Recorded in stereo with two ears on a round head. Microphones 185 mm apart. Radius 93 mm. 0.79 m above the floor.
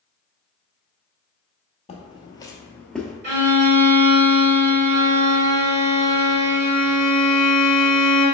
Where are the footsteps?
30° left (ahead or behind), 0.9 m; by 3.1 s centre (ahead or behind), 0.7 m.